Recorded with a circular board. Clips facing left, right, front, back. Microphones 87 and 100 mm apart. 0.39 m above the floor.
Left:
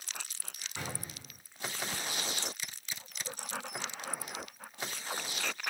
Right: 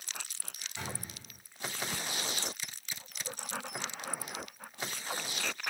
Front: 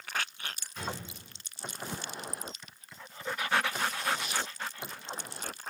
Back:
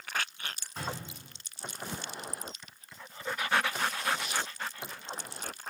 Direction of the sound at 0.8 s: 125° left.